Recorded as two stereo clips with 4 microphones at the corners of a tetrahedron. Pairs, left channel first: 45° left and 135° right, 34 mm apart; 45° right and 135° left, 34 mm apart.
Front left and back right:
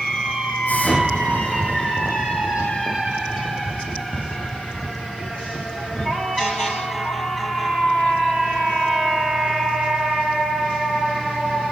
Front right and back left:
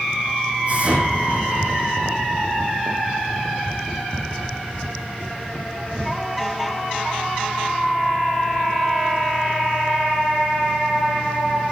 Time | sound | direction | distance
0.7 | an explosion | 85° left | 8.5 m